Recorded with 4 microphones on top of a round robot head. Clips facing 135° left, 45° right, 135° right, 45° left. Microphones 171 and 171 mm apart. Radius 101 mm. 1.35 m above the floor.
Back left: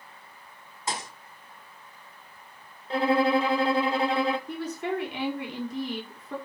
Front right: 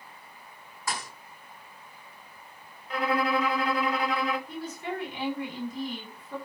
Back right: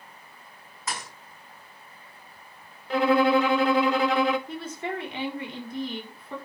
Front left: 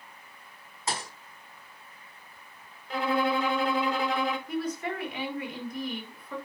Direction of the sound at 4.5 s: 165° left.